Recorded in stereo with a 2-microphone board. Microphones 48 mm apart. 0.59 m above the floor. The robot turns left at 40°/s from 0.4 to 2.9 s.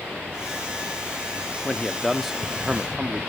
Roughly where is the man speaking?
Ahead.